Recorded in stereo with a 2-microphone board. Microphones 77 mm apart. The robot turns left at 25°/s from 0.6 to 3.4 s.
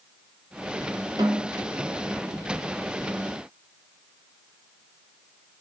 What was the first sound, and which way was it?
A snare drum, 60° right (ahead or behind).